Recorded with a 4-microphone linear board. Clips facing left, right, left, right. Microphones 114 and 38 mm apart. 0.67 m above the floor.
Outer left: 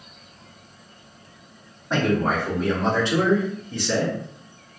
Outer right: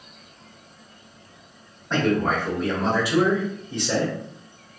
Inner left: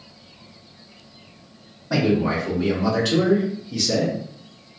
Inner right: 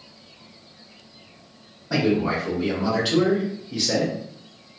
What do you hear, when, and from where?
1.9 s a man speaking: 10° left (ahead or behind), 1.9 m; by 4.1 s 25° right (ahead or behind), 1.3 m